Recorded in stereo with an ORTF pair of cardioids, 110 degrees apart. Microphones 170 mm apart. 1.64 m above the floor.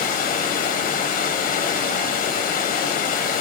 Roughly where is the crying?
No crying in this recording.